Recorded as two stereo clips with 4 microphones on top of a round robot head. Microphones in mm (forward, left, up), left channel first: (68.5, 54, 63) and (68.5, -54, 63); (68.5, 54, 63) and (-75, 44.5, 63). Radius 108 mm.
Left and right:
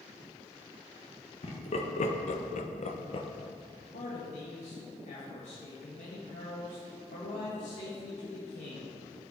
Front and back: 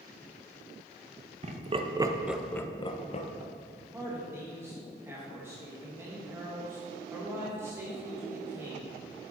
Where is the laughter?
140° left, 1.3 m; by 3.3 s 45° left, 1.1 m.